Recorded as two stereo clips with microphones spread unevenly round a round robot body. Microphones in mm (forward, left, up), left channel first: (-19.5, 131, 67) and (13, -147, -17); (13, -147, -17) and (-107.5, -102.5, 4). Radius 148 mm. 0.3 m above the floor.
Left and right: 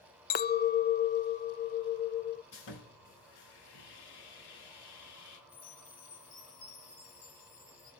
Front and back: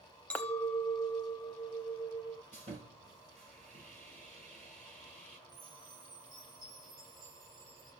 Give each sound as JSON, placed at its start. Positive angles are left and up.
{"t": 0.3, "sound": "a clink", "azimuth_deg": 35, "distance_m": 0.6}
{"t": 2.5, "sound": "sawing", "azimuth_deg": 95, "distance_m": 3.5}
{"t": 5.5, "sound": "a chime", "azimuth_deg": 120, "distance_m": 8.5}